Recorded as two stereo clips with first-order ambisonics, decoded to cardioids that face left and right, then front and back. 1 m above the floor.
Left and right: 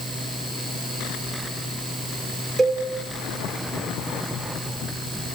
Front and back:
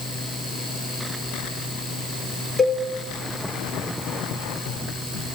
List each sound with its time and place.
2.6 s a cowbell: 35° right, 0.6 m